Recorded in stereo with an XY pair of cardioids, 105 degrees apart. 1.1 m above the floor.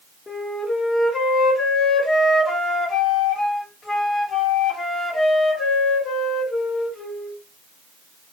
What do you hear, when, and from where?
0.3 s a flute: 35° left, 1.3 m